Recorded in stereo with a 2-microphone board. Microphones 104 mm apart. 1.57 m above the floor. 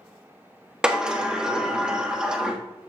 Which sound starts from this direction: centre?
A sliding door, at 0.8 s.